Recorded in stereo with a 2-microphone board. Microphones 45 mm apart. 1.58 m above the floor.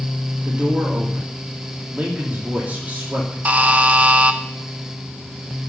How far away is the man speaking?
About 3 m.